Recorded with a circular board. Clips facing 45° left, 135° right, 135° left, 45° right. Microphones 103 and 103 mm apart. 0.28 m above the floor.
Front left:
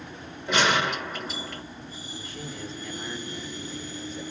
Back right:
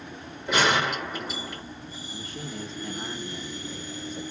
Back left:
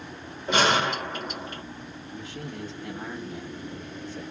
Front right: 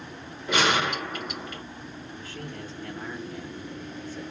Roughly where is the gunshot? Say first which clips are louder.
Even, back left 2 dB; behind left.